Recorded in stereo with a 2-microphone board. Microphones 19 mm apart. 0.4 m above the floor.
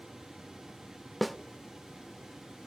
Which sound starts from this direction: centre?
A snare drum, at 1.2 s.